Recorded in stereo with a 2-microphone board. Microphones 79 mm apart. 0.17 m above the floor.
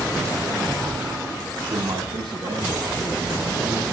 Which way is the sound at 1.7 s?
80° right.